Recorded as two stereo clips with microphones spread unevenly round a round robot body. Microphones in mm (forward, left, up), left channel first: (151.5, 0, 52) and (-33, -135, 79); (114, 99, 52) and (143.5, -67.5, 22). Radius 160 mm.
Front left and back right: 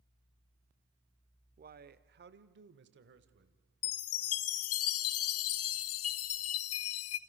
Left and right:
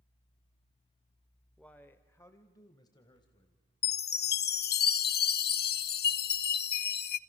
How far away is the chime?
About 0.6 m.